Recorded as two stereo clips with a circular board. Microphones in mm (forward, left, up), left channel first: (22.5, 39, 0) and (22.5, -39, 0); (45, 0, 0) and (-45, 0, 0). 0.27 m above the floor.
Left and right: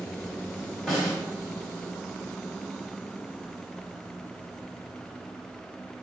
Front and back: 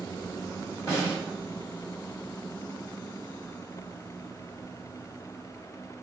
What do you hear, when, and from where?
0.9 s a snare drum: straight ahead, 1.9 m